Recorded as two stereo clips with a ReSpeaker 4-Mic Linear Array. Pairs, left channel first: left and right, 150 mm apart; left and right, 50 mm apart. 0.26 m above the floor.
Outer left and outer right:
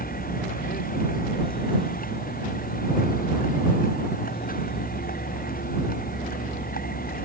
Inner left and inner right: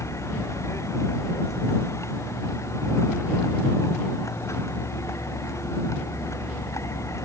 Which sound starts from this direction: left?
A vehicle, at 0.0 s.